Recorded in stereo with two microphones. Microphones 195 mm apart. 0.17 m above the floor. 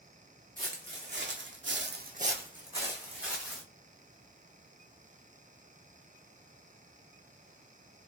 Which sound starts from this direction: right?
Footsteps, at 0.6 s.